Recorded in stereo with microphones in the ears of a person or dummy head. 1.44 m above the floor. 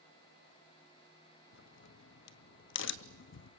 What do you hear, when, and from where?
1.5 s a crack: 70° left (ahead or behind), 0.8 m